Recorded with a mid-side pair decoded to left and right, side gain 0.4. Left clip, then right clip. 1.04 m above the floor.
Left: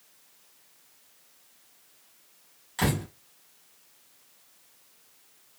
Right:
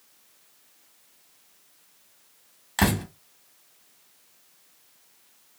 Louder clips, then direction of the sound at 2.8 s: Right 4 dB; 60° right.